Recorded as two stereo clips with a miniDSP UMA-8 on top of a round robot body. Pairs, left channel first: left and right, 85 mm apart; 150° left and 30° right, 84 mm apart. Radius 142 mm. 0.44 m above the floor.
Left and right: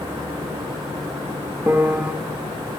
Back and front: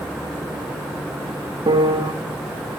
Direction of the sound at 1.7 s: 20° right.